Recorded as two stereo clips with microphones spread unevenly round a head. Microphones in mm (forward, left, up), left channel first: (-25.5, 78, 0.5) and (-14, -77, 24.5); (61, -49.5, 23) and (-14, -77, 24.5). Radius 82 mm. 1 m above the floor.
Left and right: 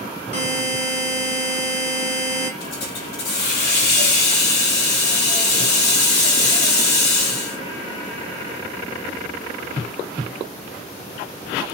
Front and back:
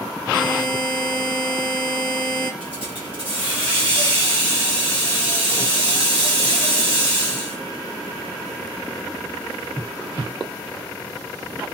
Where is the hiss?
120° left, 1.6 m.